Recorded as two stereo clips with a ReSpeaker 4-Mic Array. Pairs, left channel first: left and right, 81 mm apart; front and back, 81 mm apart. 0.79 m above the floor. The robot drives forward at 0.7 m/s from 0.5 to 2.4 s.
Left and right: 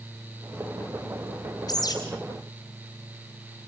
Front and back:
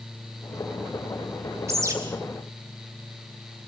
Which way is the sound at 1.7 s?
125° left.